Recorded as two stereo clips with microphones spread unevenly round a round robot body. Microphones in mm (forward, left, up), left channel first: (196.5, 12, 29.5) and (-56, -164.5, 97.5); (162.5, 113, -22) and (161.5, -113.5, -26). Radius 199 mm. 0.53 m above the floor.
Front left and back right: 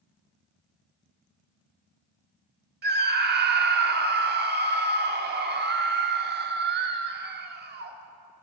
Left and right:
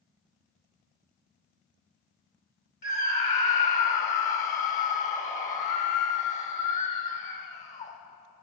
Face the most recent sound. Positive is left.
turn(degrees=150)